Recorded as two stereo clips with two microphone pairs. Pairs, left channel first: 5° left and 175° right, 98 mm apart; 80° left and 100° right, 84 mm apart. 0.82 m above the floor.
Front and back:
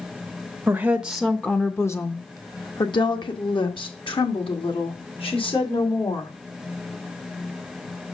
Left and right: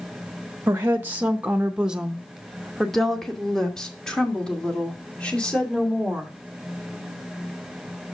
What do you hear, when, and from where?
0.7 s a woman speaking: 130° right, 0.8 m; by 6.3 s 5° left, 3 m